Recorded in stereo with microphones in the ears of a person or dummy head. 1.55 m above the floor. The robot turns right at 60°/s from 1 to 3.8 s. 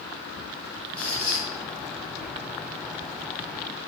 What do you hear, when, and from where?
1.0 s a squeak: 10° left (ahead or behind), 0.8 m; by 1.5 s 30° left (ahead or behind), 0.8 m